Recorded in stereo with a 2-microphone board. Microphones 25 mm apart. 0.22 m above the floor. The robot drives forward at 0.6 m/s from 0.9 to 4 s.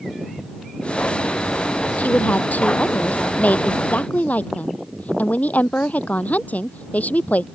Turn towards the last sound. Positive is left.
turn(degrees=75)  # may be behind; listen again after turning